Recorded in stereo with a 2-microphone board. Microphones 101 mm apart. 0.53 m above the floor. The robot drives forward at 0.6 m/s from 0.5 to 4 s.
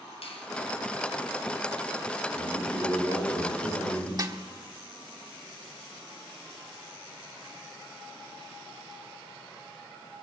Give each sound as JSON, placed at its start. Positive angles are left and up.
{"t": 0.2, "sound": "a finger snap", "side_deg": 75, "distance_m": 2.5}
{"t": 2.4, "sound": "a man speaking", "side_deg": -75, "distance_m": 7.5}
{"t": 4.2, "sound": "a snare drum", "side_deg": -45, "distance_m": 1.4}